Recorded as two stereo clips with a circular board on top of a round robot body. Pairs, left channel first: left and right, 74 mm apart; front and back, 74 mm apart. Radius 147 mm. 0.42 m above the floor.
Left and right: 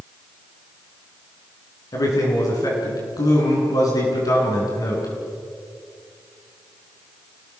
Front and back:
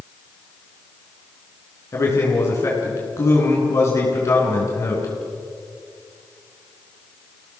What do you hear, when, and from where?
1.9 s a man speaking: 50° left, 7.5 m